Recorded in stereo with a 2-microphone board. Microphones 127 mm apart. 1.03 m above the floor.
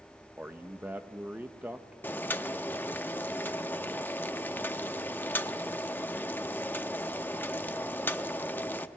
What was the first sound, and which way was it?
A man speaking, 15° right (ahead or behind).